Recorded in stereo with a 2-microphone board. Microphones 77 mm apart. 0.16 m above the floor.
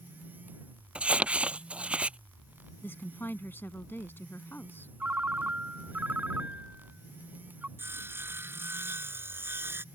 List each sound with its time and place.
0.9 s crumpling: 15° right (ahead or behind)
2.8 s a woman speaking: 30° left (ahead or behind)
5.0 s a ringtone: 25° right (ahead or behind)
7.8 s sawing: 30° right (ahead or behind)